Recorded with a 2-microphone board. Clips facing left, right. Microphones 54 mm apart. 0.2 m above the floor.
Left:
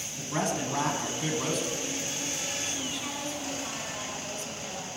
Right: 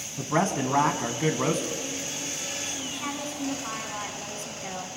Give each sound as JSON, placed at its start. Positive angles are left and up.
{"t": 0.2, "sound": "a man speaking", "side_deg": -40, "distance_m": 1.3}
{"t": 2.9, "sound": "a woman speaking", "side_deg": -45, "distance_m": 2.0}